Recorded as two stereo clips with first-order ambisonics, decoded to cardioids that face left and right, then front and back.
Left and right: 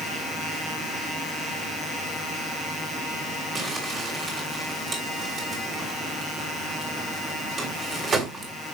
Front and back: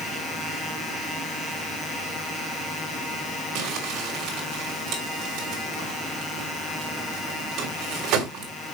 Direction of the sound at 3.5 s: 155° right.